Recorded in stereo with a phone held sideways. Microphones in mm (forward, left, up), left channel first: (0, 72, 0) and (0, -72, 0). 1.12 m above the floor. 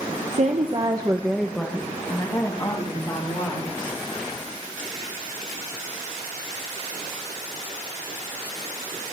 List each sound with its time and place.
0.3 s a woman speaking: 55° right (ahead or behind), 0.9 m; by 4.0 s 35° left (ahead or behind), 3 m